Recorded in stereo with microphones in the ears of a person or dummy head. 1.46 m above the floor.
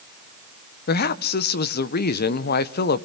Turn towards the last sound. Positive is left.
turn(degrees=55)  # may be behind; listen again after turning